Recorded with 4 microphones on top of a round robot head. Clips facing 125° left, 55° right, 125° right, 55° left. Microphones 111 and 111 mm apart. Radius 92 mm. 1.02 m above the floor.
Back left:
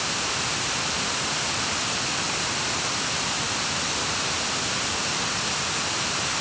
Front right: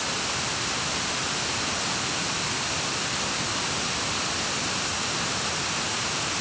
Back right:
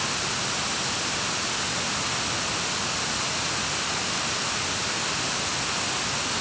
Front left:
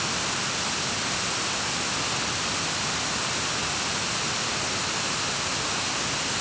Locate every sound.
Only background noise.